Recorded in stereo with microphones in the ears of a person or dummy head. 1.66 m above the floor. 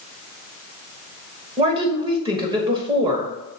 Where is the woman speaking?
20° right (ahead or behind), 1.2 m.